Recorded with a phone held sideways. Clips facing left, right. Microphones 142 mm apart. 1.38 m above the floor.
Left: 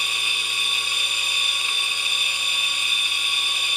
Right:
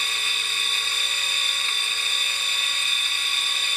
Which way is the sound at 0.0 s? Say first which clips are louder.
Left 1 dB; 15° left (ahead or behind).